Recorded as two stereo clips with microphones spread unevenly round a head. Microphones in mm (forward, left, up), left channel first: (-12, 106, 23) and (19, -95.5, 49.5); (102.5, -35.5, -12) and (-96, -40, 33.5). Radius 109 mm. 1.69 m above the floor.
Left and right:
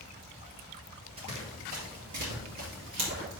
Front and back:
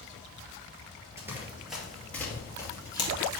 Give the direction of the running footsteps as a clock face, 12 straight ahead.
4 o'clock.